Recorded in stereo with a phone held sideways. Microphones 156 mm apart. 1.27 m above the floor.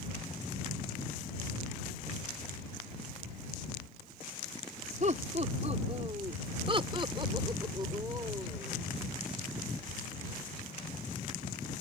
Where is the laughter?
50° right (ahead or behind); by 8.8 s 20° right (ahead or behind).